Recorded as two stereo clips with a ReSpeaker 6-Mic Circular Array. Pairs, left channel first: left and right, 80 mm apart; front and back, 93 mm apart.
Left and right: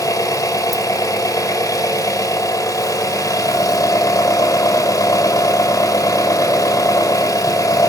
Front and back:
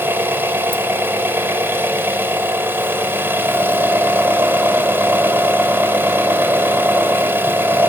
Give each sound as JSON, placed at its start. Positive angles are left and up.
{"t": 0.0, "sound": "an engine running", "azimuth_deg": 120, "distance_m": 1.5}